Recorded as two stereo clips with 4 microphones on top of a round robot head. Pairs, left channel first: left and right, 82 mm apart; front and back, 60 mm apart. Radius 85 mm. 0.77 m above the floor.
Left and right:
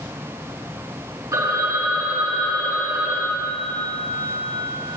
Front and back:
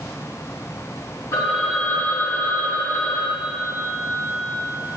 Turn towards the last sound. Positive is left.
turn(degrees=-45)